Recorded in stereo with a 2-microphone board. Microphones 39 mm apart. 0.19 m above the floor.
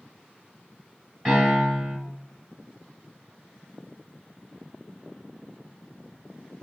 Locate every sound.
1.2 s a piano: 10° left (ahead or behind), 1.8 m